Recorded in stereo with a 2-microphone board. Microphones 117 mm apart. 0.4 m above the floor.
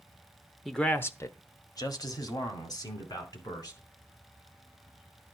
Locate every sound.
0.7 s a man speaking: centre (ahead or behind), 0.8 m; by 3.8 s 30° left (ahead or behind), 4 m